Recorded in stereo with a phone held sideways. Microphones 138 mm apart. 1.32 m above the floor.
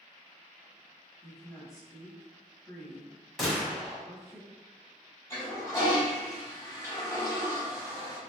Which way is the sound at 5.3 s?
20° left (ahead or behind).